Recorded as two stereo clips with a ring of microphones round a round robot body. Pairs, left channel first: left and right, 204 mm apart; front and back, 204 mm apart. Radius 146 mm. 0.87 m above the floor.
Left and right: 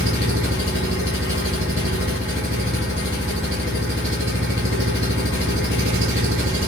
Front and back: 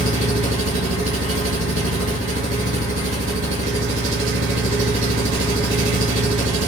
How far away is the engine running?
About 1.5 m.